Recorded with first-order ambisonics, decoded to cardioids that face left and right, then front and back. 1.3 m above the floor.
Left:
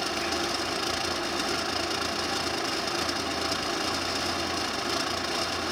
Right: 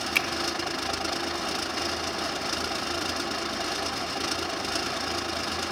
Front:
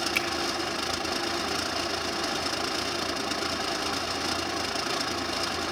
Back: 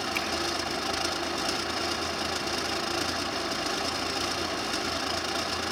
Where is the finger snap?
80° right, 1.1 m.